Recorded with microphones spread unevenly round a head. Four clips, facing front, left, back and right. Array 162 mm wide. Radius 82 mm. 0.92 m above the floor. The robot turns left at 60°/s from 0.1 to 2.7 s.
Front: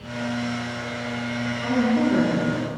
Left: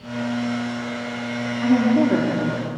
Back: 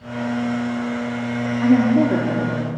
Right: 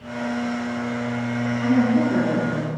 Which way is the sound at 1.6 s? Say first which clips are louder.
Left 2 dB, back 6 dB; 170° left.